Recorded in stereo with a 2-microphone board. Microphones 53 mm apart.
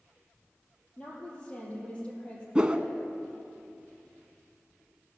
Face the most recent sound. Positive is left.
turn(degrees=-20)  # may be behind; listen again after turning